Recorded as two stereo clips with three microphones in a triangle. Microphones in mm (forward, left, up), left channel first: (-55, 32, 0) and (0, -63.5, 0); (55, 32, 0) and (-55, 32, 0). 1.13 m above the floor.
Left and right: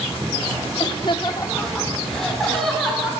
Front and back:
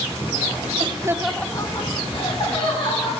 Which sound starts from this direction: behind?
Laughter, at 0.8 s.